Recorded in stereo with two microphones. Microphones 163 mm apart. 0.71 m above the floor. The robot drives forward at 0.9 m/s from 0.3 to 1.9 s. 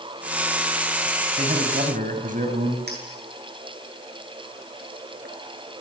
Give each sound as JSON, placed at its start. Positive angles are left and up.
{"t": 1.4, "sound": "a man speaking", "side_deg": -50, "distance_m": 4.5}
{"t": 2.9, "sound": "a clink", "side_deg": -85, "distance_m": 8.0}